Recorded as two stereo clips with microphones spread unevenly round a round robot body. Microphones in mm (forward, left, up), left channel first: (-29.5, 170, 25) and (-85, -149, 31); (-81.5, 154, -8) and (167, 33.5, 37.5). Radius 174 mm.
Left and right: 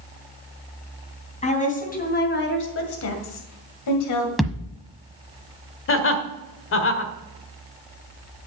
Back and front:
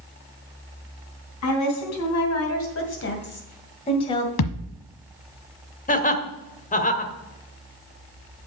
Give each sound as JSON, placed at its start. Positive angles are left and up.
{"t": 1.4, "sound": "a woman speaking", "azimuth_deg": 150, "distance_m": 3.0}
{"t": 4.4, "sound": "a thud", "azimuth_deg": 170, "distance_m": 1.2}
{"t": 5.9, "sound": "laughter", "azimuth_deg": 115, "distance_m": 1.5}